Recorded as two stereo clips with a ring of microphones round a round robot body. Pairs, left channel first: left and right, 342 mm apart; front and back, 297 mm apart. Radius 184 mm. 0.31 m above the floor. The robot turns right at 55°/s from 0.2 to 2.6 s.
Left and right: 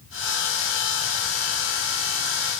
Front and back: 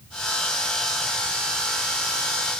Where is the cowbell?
No cowbell in this recording.